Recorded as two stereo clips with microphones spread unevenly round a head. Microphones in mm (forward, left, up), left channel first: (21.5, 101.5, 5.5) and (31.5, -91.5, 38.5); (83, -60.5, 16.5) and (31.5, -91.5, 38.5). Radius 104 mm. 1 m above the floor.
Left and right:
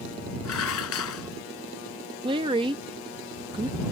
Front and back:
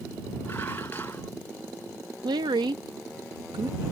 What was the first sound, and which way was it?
Dishes clattering, 110° left.